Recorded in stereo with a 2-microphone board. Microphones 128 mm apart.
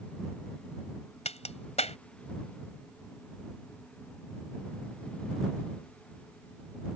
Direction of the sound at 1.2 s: 60° left (ahead or behind).